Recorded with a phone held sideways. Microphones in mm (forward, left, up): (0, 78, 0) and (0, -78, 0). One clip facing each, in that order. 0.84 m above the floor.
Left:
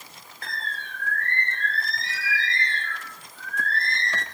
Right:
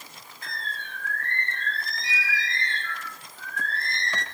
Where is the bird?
65° left (ahead or behind), 2 m.